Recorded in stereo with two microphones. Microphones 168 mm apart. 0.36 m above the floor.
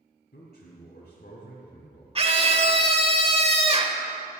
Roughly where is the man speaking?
Left.